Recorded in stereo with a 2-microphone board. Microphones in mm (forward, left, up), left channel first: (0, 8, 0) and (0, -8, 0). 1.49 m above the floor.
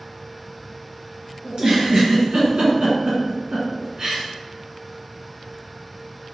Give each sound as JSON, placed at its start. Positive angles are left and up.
{"t": 1.4, "sound": "a giggle", "side_deg": -55, "distance_m": 1.7}